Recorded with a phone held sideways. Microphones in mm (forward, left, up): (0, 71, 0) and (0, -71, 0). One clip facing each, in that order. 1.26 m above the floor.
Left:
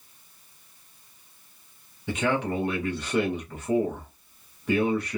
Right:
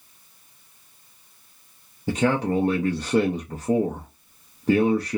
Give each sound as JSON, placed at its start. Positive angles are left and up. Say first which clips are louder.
{"t": 2.1, "sound": "a man speaking", "louder": "right 4 dB", "side_deg": -35, "distance_m": 0.6}